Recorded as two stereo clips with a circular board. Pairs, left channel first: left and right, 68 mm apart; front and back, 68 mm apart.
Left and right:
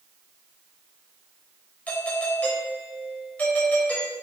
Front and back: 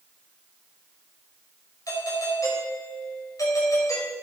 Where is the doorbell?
25° left, 5 m.